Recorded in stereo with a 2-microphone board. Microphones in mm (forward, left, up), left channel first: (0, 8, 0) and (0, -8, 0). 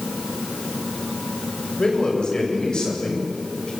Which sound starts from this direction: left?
A man speaking, at 1.8 s.